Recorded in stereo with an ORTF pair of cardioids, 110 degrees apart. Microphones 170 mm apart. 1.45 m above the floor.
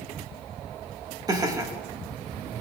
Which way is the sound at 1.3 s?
20° right.